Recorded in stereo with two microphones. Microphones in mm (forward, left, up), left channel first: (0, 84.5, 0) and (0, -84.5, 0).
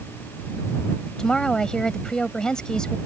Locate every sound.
1.2 s a woman speaking: 5° left (ahead or behind)